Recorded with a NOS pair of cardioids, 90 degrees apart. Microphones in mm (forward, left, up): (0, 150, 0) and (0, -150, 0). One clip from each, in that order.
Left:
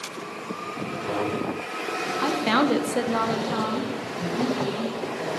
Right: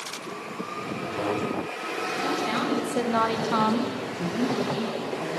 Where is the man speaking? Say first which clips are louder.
Left 1 dB; 20° right, 1.5 m.